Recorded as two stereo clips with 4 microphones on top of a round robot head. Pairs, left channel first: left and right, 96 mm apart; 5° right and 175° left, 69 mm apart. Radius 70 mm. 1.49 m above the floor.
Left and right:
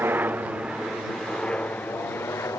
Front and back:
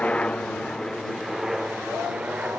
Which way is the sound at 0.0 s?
55° right.